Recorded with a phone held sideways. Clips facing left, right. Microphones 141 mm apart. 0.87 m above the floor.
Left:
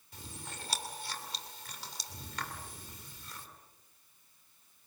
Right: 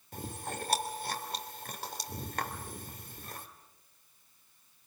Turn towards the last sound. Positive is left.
turn(degrees=-55)  # may be behind; listen again after turning